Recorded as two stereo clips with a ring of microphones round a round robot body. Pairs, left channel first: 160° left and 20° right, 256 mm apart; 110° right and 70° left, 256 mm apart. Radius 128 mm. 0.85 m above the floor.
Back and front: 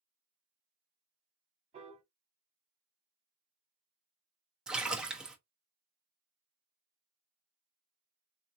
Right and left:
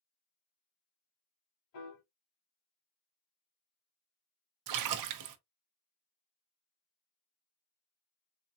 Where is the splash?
65° left, 0.6 m.